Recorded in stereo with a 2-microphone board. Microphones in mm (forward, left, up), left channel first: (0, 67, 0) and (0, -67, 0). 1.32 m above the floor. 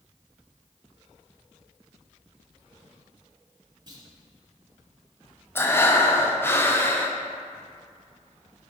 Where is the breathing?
15° left (ahead or behind), 0.7 m.